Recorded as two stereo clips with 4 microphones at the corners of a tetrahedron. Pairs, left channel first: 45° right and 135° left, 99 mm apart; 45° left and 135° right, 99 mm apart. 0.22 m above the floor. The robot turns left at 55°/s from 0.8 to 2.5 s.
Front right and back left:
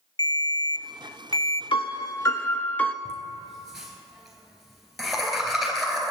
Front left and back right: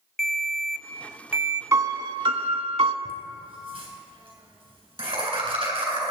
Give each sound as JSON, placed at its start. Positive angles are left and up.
{"t": 0.2, "sound": "a ringtone", "azimuth_deg": -40, "distance_m": 0.5}
{"t": 1.7, "sound": "a piano", "azimuth_deg": -75, "distance_m": 0.5}
{"t": 3.0, "sound": "laughter", "azimuth_deg": -135, "distance_m": 3.5}